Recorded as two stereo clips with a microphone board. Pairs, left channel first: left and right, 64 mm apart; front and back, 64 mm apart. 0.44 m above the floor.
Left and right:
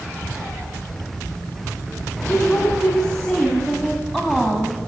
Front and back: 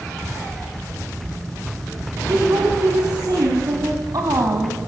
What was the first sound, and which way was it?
A woman speaking, 155° left.